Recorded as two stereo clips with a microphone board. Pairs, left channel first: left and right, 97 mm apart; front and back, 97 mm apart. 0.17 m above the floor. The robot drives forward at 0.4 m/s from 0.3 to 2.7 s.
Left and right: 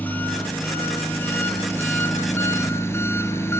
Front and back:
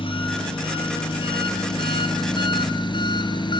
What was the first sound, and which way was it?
An engine running, 20° left.